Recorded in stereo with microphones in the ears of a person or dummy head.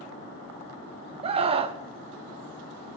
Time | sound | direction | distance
1.2 | a scream | 30° right (ahead or behind) | 0.9 m